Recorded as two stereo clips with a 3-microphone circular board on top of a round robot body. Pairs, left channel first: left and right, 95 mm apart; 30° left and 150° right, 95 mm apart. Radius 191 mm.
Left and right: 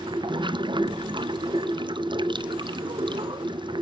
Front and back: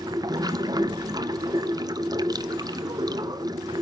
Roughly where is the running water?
Right.